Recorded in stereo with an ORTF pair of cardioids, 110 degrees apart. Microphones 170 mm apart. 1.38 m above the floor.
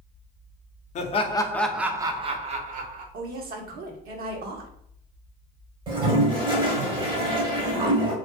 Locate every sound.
0.9 s laughter: 45° left, 0.6 m; by 3.0 s 55° right, 0.9 m
3.1 s a woman speaking: 65° right, 0.8 m
5.9 s a toilet flushing: 30° right, 0.8 m